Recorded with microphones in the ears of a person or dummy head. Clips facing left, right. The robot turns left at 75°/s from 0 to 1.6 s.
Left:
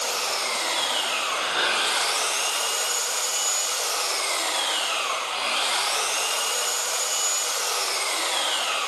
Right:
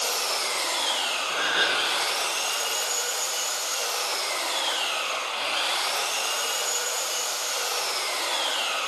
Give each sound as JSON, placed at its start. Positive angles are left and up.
{"t": 0.0, "sound": "an engine running", "azimuth_deg": -125, "distance_m": 5.0}
{"t": 1.3, "sound": "a gasp", "side_deg": -30, "distance_m": 0.8}